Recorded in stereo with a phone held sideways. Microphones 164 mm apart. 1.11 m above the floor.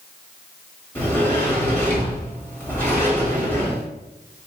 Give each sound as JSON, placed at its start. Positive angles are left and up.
{"t": 0.9, "sound": "a sliding door", "side_deg": 10, "distance_m": 1.4}